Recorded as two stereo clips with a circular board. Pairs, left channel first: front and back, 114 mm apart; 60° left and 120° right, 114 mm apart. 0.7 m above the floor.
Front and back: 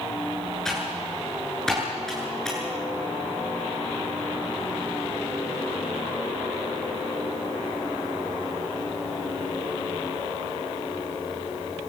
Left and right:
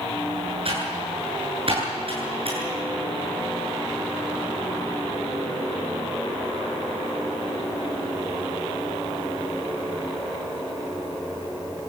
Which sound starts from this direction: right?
Typing on a keyboard, at 0.7 s.